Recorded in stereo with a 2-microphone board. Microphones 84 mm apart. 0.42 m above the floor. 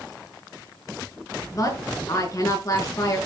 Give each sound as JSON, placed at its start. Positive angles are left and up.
{"t": 1.5, "sound": "a woman speaking", "side_deg": 40, "distance_m": 6.0}